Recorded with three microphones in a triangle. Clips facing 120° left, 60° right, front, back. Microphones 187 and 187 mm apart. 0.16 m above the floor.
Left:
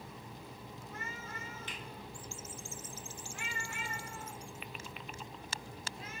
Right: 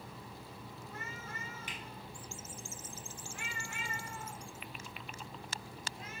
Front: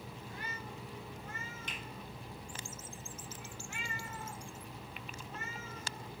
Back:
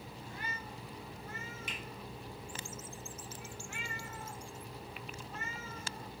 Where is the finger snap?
110° right, 1.0 m.